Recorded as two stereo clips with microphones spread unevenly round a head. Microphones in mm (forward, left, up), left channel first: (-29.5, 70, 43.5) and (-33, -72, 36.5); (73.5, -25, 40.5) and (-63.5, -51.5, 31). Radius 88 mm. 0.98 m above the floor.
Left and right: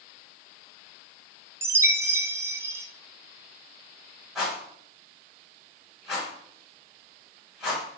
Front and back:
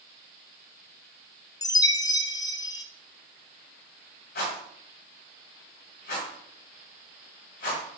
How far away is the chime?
About 0.5 m.